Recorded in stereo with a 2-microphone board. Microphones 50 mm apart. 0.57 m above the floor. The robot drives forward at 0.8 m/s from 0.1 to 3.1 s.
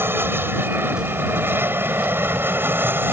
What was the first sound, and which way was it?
An aircraft, 50° right (ahead or behind).